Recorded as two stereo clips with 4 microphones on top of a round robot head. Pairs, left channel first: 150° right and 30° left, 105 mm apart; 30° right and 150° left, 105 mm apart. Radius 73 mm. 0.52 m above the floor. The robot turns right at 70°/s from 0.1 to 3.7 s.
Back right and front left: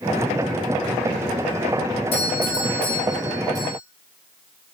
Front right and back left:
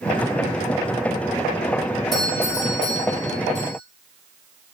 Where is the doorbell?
120° right, 9 m; by 3.8 s 10° right, 9 m.